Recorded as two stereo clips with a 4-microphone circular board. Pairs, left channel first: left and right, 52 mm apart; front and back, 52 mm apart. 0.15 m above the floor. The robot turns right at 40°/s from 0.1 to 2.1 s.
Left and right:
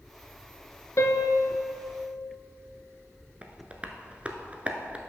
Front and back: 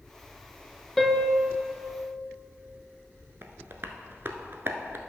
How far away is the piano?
About 0.6 m.